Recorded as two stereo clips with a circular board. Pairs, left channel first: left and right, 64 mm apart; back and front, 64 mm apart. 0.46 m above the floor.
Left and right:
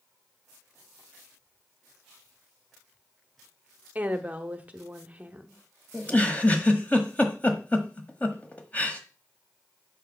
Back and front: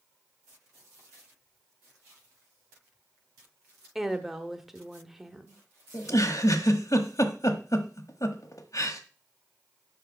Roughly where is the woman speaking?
Right.